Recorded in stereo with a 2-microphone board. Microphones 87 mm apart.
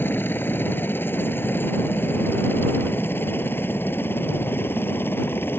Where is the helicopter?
20° left (ahead or behind); by 5.6 s 25° left (ahead or behind).